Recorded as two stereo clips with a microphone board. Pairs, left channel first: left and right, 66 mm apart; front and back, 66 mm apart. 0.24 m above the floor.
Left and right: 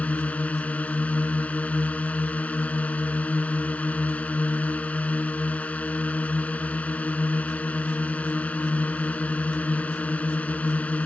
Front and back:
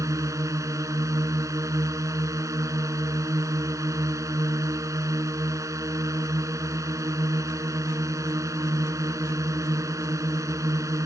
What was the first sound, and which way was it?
A drone, 155° left.